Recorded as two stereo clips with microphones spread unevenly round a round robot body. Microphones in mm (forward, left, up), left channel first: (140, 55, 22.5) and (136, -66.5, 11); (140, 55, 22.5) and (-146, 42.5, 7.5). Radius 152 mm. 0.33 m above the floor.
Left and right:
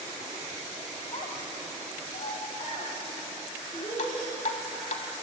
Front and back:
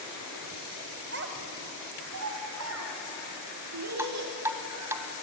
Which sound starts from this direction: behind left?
A child speaking, at 1.1 s.